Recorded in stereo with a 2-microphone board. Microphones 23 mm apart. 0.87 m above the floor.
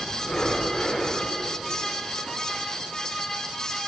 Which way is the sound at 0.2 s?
70° left (ahead or behind).